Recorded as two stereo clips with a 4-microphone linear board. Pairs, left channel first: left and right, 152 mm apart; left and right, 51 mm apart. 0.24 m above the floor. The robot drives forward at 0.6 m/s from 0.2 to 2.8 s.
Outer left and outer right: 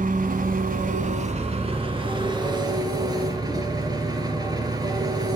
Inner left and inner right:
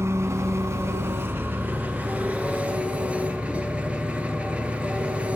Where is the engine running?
65° right (ahead or behind), 0.8 m; by 5.4 s 25° right (ahead or behind), 1.6 m.